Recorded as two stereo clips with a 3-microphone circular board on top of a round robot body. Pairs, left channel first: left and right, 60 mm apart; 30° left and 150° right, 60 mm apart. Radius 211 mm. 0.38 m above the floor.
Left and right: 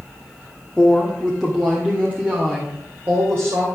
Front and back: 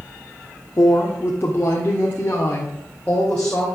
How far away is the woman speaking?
About 1.6 m.